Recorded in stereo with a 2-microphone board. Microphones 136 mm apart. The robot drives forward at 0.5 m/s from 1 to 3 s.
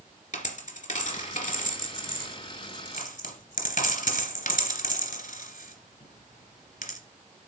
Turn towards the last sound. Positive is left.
turn(degrees=80)